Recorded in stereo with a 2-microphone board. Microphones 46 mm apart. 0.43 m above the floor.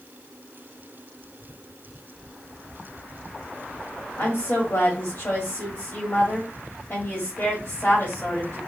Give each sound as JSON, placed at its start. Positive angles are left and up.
{"t": 4.2, "sound": "a woman speaking", "side_deg": 50, "distance_m": 1.8}